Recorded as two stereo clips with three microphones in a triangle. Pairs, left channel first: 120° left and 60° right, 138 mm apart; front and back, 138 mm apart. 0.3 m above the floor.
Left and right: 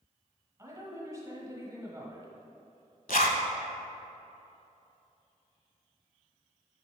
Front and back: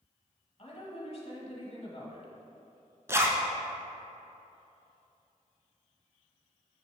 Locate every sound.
0.6 s a woman speaking: 5° right, 1.2 m
3.1 s a zipper: 110° left, 0.7 m